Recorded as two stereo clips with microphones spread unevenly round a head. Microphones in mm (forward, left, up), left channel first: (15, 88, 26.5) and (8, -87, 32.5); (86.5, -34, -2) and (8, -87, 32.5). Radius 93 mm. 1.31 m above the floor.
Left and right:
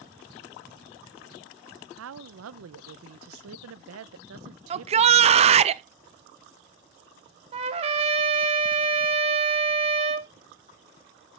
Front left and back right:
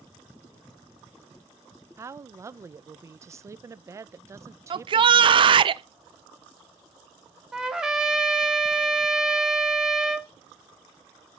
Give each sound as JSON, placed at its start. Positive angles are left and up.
{"t": 2.0, "sound": "a woman speaking", "azimuth_deg": -95, "distance_m": 0.6}
{"t": 4.7, "sound": "a shout", "azimuth_deg": -120, "distance_m": 0.6}
{"t": 7.5, "sound": "a trumpet", "azimuth_deg": -110, "distance_m": 0.9}